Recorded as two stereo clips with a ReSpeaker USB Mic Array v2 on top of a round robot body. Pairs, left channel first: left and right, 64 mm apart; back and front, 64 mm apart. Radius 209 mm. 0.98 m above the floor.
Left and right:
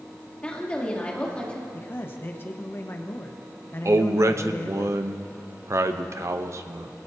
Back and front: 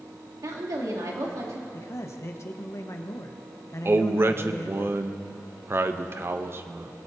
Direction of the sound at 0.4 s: 20° left.